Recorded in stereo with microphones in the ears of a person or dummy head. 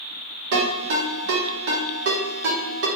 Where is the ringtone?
65° right (ahead or behind), 1.4 m.